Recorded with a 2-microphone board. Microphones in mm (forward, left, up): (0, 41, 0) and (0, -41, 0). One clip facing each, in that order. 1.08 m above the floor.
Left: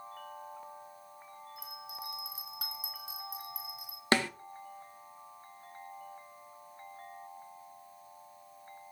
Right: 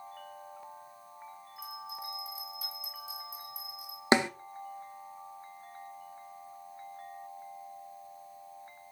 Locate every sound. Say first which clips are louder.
1.6 s a bell: right 4 dB; 80° left, 4.5 m
4.1 s a snare drum: right 4 dB; 20° right (ahead or behind), 0.6 m